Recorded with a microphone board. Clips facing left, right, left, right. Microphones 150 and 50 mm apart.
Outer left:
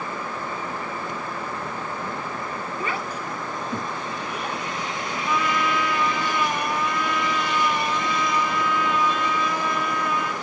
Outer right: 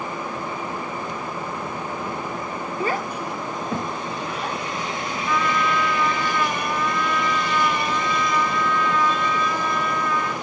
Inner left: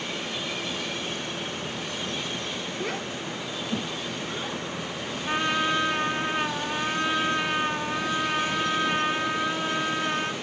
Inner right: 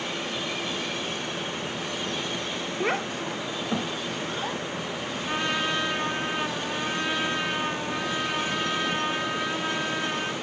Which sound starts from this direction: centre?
A trumpet, at 5.3 s.